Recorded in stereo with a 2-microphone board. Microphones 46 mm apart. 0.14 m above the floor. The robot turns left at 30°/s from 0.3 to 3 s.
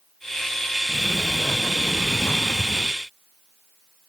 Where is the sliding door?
160° left; by 3.0 s 95° left.